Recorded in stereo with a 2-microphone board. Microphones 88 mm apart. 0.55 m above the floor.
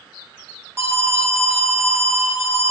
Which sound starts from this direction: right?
An alarm, at 0.8 s.